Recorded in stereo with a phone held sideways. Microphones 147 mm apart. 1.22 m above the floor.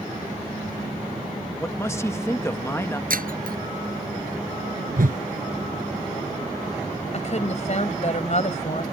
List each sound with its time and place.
1.6 s a man speaking: 20° left (ahead or behind)
3.1 s breaking glass: 75° right (ahead or behind)
5.0 s a whoosh: 70° right (ahead or behind)
7.1 s a woman speaking: 50° left (ahead or behind)